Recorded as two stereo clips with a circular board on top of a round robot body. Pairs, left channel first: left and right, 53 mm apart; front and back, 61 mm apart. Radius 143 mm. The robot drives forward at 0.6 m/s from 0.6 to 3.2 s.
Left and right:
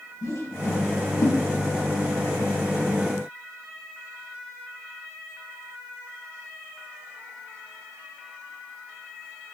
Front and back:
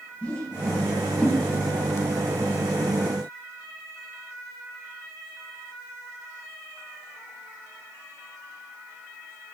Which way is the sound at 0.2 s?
75° left.